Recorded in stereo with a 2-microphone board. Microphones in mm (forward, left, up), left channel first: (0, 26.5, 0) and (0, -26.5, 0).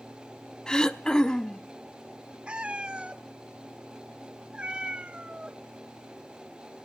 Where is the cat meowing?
20° right (ahead or behind), 0.6 m.